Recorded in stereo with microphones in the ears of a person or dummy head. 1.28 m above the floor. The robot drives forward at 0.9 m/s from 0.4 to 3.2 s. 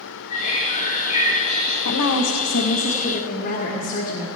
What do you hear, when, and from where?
0.3 s a bird: 30° left (ahead or behind), 6.5 m; by 1.8 s 25° left (ahead or behind), 8 m
1.9 s a woman speaking: 90° left, 0.9 m; by 4.3 s 35° left (ahead or behind), 1.5 m